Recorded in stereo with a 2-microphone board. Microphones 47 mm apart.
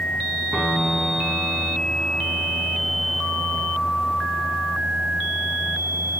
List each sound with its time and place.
0.5 s a piano: 10° right (ahead or behind), 4.5 m